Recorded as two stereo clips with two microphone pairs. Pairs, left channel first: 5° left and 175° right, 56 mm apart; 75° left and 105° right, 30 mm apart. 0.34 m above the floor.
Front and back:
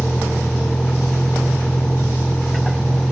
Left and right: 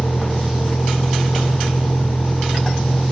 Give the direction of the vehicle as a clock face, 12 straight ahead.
9 o'clock.